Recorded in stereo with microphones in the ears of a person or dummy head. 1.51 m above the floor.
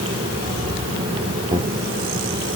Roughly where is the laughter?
Right.